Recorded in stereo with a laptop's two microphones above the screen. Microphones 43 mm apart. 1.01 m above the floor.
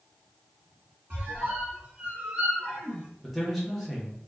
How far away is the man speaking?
About 0.7 m.